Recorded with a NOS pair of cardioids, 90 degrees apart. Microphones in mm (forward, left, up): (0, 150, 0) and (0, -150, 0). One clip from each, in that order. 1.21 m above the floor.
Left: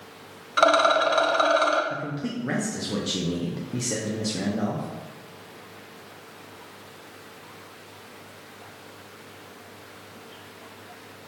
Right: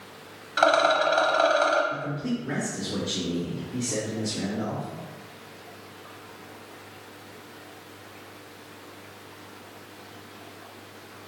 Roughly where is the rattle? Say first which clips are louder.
Left 2 dB; ahead.